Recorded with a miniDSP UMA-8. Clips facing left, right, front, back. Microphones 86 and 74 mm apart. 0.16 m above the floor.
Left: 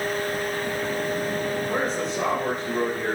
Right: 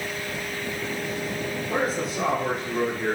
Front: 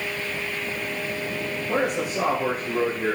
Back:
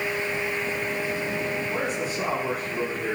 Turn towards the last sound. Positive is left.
turn(degrees=-5)